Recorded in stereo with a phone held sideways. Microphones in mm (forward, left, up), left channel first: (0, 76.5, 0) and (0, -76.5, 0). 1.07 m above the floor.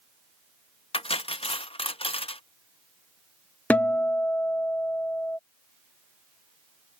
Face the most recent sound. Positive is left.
turn(degrees=10)  # may be behind; listen again after turning